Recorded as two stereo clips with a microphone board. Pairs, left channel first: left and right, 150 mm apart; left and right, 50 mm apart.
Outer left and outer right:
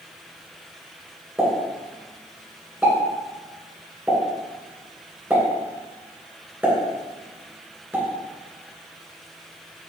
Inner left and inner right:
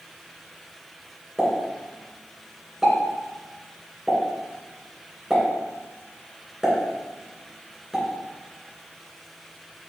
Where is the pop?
10° right (ahead or behind), 3 m.